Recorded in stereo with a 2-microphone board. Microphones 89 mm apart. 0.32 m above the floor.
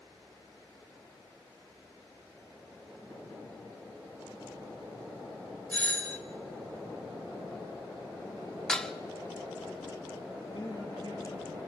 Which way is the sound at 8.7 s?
5° left (ahead or behind).